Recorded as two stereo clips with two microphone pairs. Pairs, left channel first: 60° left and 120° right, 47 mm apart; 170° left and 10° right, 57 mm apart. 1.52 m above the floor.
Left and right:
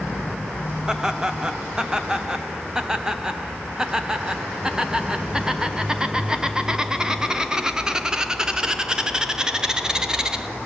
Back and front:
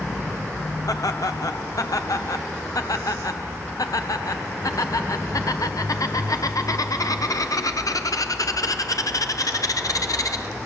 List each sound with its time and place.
0.9 s laughter: 170° left, 0.9 m